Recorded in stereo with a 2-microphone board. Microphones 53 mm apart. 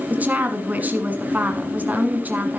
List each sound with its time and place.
0.1 s a woman speaking: 35° right (ahead or behind), 1.6 m